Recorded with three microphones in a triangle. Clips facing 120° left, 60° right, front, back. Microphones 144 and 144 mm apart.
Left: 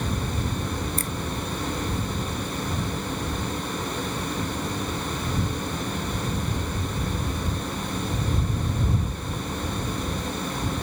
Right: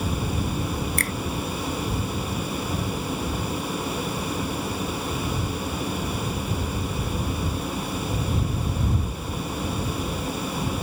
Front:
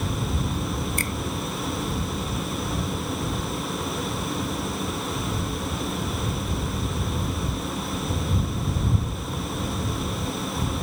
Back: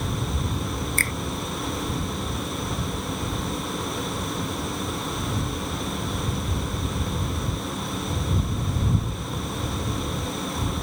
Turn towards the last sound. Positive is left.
turn(degrees=-75)